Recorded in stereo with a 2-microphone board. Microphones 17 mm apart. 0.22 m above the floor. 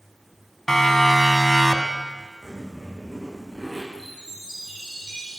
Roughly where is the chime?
Right.